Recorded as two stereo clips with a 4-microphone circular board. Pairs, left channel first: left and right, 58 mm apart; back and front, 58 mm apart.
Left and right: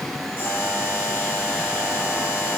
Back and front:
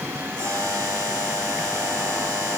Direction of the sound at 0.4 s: 35° left.